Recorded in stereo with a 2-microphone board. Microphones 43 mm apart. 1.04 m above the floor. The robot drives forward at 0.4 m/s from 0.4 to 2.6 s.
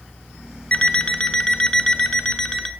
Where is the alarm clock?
20° left (ahead or behind), 1.0 m; by 2.7 s 15° left (ahead or behind), 1.7 m.